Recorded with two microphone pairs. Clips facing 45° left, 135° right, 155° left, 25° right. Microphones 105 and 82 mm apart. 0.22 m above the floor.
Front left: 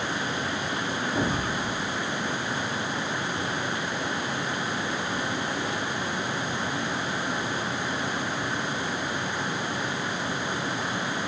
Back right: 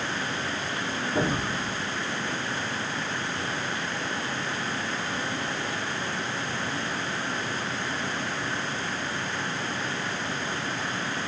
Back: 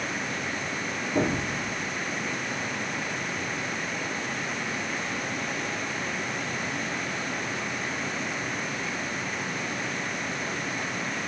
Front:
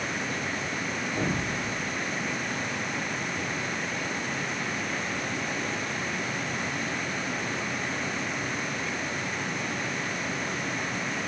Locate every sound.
1.1 s an explosion: 155° left, 2.5 m